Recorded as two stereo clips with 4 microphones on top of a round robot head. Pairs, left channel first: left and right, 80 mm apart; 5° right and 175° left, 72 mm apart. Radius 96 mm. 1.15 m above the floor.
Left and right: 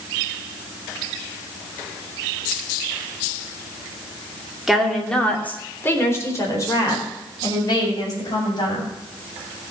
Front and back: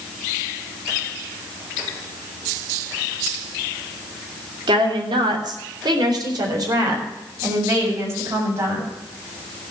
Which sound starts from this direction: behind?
A woman speaking, at 4.7 s.